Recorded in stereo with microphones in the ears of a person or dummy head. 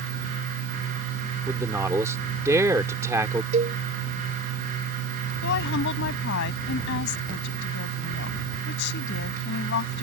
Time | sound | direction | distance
1.5 | a man speaking | 10° right (ahead or behind) | ?
3.5 | a cowbell | 40° right (ahead or behind) | ?
5.4 | a woman speaking | 60° left (ahead or behind) | ?